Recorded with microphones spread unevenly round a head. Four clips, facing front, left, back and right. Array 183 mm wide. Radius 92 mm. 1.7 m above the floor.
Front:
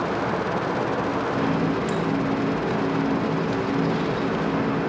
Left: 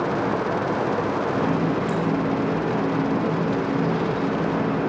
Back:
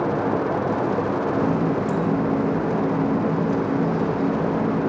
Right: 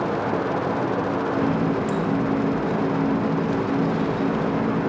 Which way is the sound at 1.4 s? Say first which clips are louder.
Right 1 dB, back 2 dB; 175° left.